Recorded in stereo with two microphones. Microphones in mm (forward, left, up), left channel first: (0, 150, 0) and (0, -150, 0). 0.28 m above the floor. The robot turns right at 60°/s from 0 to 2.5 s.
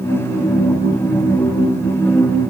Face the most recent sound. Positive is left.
No sound to turn to.